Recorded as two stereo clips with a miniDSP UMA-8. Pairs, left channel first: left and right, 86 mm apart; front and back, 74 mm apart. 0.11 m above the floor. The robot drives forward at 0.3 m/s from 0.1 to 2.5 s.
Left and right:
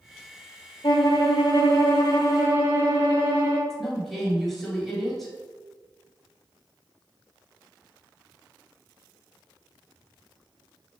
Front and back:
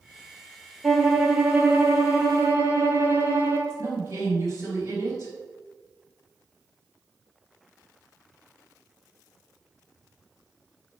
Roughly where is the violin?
Left.